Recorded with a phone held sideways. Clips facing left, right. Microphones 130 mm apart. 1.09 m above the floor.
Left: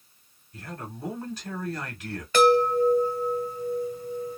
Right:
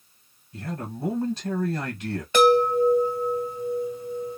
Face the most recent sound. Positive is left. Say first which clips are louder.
# right 1 dB
turn(degrees=-20)  # may be behind; listen again after turning